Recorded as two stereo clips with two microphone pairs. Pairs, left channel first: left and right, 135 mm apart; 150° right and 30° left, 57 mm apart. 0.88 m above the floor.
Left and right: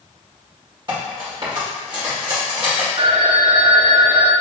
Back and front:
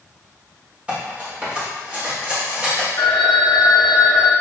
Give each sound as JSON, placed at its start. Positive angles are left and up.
{"t": 0.9, "sound": "cutlery clinking", "azimuth_deg": -35, "distance_m": 1.6}
{"t": 3.0, "sound": "a phone ringing", "azimuth_deg": -135, "distance_m": 0.6}